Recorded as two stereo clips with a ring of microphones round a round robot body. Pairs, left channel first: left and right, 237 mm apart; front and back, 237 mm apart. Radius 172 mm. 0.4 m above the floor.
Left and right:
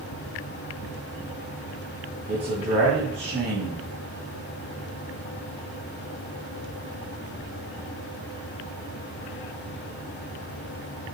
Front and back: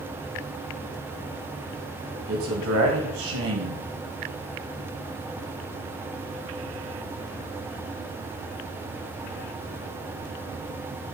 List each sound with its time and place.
2.3 s a man speaking: 160° right, 2.0 m